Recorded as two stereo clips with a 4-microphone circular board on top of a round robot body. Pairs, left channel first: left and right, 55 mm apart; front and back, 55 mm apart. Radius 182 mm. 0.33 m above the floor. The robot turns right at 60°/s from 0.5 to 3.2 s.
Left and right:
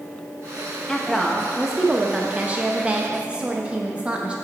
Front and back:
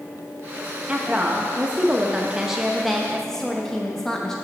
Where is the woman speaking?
155° left, 0.8 m; by 4.3 s 65° right, 0.8 m.